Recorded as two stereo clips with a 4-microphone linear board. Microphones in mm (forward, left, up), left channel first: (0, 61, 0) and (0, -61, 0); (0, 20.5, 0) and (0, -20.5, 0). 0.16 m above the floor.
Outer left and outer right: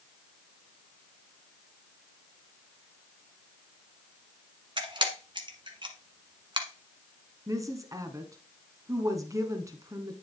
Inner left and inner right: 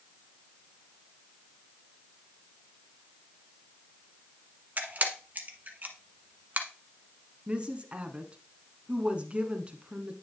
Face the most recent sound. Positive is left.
turn(degrees=-25)  # may be behind; listen again after turning